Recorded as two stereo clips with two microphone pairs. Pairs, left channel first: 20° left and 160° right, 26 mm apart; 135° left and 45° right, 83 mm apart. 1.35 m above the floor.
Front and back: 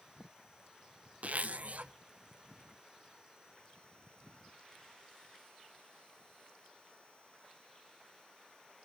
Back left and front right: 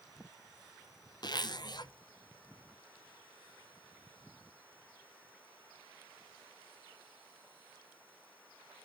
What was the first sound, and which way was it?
A zipper, 170° left.